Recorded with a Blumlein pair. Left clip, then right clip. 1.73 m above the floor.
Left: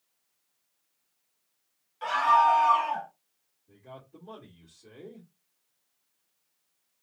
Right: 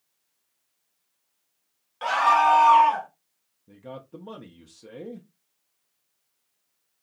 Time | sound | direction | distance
2.0 | a scream | 65° right | 1.3 m
3.7 | a man speaking | 40° right | 0.7 m